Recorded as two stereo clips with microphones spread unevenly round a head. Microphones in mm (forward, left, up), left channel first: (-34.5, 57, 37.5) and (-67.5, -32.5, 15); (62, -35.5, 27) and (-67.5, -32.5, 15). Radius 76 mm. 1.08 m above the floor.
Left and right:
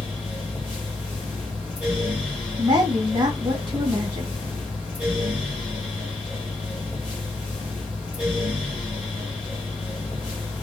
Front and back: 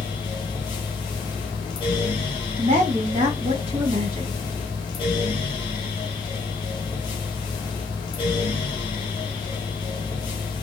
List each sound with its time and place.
0.0 s a fan: 15° right, 0.7 m
2.6 s a woman speaking: 140° right, 1.3 m